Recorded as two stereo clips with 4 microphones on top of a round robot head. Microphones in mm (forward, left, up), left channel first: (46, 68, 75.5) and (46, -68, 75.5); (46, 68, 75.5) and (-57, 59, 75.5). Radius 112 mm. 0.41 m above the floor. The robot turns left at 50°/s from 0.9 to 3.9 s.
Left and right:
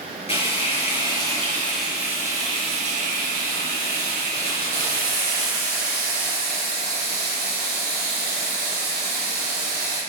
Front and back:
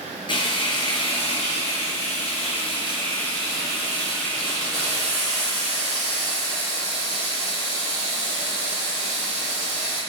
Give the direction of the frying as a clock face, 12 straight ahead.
10 o'clock.